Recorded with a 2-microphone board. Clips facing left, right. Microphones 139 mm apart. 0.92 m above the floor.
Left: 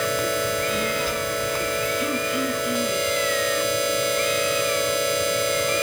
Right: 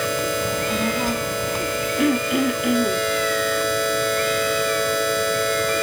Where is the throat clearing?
80° right, 2.5 m.